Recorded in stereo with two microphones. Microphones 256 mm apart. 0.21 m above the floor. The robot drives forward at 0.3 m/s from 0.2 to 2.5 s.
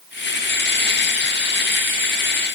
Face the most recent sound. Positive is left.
No sound to turn to.